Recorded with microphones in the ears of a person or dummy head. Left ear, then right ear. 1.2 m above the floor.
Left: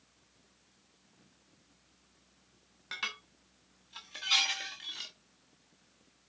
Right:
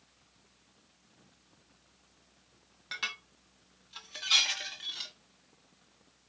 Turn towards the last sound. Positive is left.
turn(degrees=0)  # may be behind; listen again after turning